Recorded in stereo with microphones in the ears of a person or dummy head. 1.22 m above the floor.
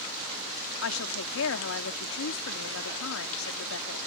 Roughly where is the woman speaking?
Left.